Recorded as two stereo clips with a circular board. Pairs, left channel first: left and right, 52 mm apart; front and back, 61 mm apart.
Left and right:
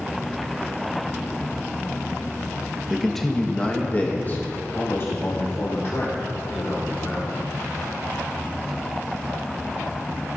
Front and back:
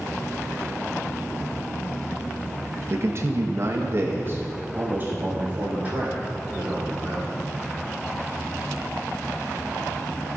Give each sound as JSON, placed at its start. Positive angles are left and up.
{"t": 2.9, "sound": "a man speaking", "azimuth_deg": -175, "distance_m": 1.0}